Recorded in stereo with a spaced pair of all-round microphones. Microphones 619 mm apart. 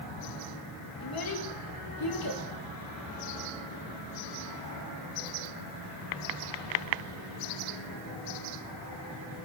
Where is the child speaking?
35° left (ahead or behind), 1.1 m.